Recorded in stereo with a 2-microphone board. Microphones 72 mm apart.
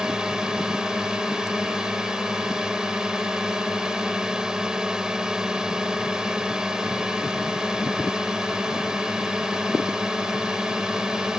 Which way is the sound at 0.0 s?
10° right (ahead or behind).